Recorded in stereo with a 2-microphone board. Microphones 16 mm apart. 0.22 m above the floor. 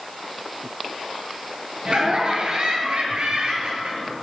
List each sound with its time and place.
1.9 s laughter: 55° right (ahead or behind), 4.5 m; by 4.1 s 75° right (ahead or behind), 5.5 m